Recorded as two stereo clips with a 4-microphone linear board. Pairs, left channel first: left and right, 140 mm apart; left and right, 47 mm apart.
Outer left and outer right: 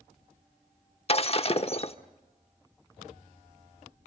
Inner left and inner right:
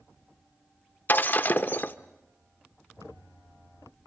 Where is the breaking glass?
45° left (ahead or behind), 0.8 m.